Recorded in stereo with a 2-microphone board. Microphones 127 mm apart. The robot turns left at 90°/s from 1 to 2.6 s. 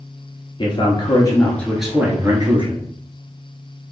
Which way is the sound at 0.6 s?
70° left.